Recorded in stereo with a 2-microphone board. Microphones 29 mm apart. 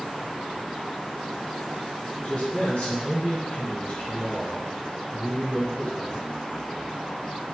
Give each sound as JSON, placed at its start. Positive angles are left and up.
{"t": 2.2, "sound": "a man speaking", "side_deg": 45, "distance_m": 1.0}